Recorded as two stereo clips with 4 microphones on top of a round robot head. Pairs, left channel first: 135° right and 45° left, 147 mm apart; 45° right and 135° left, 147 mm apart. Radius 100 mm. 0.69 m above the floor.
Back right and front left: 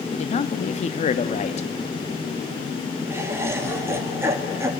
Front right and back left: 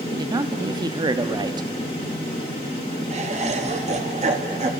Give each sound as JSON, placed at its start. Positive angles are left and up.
{"t": 0.1, "sound": "a man speaking", "azimuth_deg": -170, "distance_m": 0.9}
{"t": 3.1, "sound": "laughter", "azimuth_deg": 115, "distance_m": 1.6}